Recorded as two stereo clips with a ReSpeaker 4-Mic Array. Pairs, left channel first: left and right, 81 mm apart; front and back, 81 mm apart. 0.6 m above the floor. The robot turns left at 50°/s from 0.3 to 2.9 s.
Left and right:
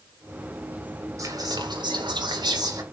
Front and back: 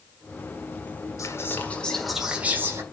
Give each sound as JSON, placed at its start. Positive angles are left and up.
{"t": 1.2, "sound": "whispering", "azimuth_deg": -45, "distance_m": 1.7}